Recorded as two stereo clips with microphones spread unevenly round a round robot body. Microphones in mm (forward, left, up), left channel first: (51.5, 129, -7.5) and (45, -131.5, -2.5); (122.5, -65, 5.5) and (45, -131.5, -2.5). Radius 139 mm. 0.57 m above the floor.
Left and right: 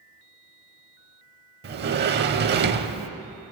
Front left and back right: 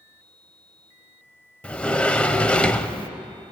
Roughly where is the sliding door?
Ahead right.